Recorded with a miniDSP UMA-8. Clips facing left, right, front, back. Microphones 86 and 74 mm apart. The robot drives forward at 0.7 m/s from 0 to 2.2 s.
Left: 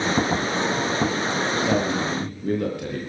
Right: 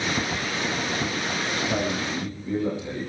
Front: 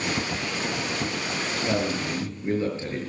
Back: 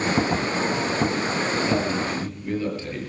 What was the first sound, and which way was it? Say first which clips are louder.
A man speaking: left 3 dB, back 3 dB; 60° left.